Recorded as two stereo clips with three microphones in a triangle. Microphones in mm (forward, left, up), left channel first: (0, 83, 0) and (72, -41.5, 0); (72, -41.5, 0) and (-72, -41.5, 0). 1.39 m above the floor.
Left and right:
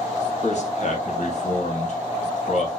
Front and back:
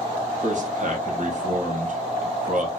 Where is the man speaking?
155° left, 1.1 m.